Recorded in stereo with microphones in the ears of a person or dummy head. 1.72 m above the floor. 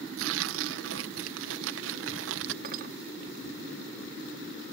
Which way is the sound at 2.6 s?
45° right (ahead or behind).